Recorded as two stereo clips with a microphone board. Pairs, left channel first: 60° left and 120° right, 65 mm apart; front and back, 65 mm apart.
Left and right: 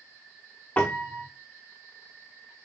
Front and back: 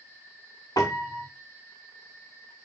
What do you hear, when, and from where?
0.8 s a piano: 5° right, 0.8 m